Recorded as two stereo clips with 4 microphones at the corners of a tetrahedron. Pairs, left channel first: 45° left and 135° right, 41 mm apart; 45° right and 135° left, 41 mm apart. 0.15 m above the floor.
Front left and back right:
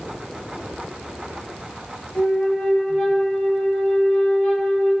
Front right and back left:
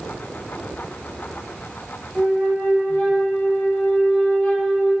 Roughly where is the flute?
Ahead.